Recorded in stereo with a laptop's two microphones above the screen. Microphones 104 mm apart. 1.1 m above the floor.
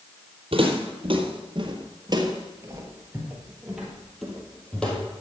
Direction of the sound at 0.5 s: 60° right (ahead or behind).